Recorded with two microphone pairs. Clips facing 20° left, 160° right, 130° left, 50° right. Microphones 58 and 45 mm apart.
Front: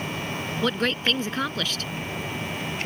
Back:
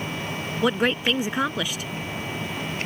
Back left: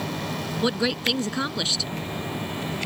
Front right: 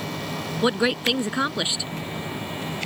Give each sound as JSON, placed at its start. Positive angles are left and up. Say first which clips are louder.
{"t": 0.6, "sound": "a woman speaking", "louder": "back 3 dB, front right 3 dB", "azimuth_deg": -105}